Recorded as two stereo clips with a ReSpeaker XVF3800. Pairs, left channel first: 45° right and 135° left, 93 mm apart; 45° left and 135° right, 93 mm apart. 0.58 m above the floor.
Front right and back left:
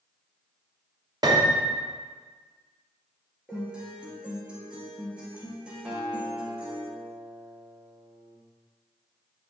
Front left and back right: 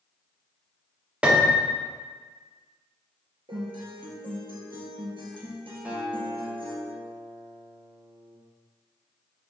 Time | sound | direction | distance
1.2 | a piano | 155° left | 0.6 m
3.5 | a guitar | 145° right | 1.4 m
5.8 | a guitar | straight behind | 0.6 m